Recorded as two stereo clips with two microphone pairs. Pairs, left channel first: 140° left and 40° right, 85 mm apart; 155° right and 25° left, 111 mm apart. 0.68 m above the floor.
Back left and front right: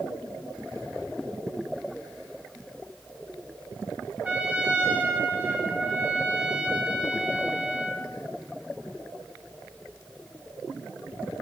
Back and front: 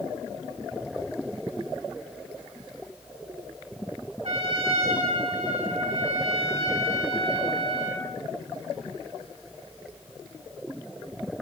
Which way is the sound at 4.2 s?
35° left.